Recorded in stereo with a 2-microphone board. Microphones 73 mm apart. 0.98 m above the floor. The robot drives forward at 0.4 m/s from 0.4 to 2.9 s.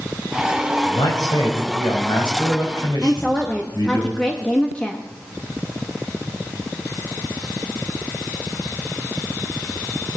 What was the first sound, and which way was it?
A man speaking, 85° left.